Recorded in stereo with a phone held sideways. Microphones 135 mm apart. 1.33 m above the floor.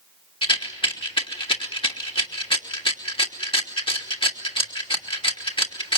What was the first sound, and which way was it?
A rattle, 40° left (ahead or behind).